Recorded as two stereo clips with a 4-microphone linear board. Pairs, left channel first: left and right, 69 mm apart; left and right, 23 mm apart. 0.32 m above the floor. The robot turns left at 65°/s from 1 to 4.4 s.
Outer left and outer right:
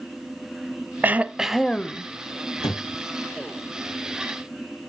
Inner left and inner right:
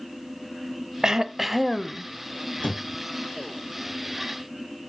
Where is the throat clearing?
145° right, 0.6 m; by 2.0 s 150° left, 0.6 m.